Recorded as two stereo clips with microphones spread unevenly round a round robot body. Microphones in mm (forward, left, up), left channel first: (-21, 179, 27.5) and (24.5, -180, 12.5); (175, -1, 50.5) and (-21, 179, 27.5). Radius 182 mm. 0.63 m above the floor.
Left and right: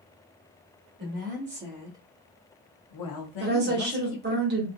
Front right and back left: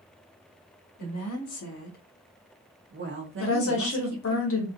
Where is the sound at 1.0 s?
35° right, 1.1 m; by 4.4 s 120° left, 1.5 m.